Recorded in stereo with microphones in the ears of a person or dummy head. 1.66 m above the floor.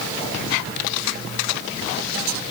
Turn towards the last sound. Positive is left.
No sound to turn to.